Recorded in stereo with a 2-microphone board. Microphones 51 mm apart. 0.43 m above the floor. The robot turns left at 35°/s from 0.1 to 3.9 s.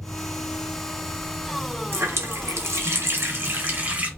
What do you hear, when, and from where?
1.9 s a running tap: 75° right, 1.2 m; by 4.1 s 140° right, 1.2 m